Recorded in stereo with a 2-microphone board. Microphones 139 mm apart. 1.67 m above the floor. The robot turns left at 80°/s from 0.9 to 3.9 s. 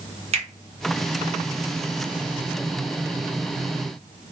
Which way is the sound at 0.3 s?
50° right (ahead or behind).